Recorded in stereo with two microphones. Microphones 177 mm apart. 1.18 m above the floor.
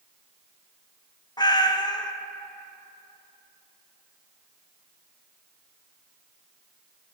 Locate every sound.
1.4 s a cat meowing: 25° left (ahead or behind), 0.5 m